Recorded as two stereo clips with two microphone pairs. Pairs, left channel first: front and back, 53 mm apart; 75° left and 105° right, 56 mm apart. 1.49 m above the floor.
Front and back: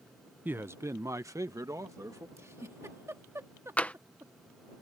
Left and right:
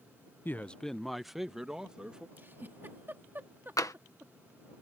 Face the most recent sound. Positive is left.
turn(degrees=65)